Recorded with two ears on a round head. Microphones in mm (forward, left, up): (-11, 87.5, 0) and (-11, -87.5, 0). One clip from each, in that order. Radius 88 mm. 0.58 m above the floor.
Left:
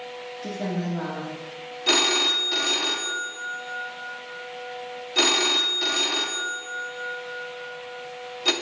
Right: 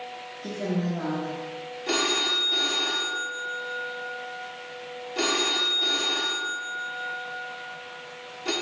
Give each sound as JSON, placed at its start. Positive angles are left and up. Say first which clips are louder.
{"t": 0.4, "sound": "a woman speaking", "louder": "right 1 dB", "side_deg": 30, "distance_m": 1.2}
{"t": 1.9, "sound": "a phone ringing", "louder": "left 4 dB", "side_deg": 45, "distance_m": 0.6}